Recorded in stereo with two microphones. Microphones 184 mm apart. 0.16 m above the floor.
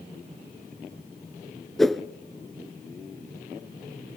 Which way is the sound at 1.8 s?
Centre (ahead or behind).